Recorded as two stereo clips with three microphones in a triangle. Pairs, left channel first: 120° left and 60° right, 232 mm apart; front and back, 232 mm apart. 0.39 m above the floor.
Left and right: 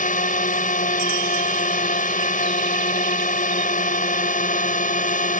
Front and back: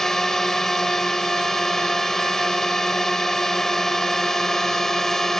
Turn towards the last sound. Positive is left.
turn(degrees=85)